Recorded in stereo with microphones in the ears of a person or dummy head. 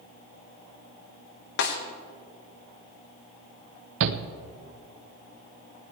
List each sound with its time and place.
1.6 s a snare drum: 65° left (ahead or behind), 1.7 m
4.0 s a shout: 70° right (ahead or behind), 1.0 m